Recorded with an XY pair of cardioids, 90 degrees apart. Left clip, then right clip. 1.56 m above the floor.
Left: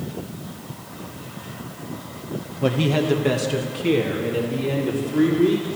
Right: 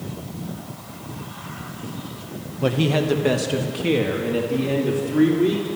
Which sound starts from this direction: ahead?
A man speaking, at 2.6 s.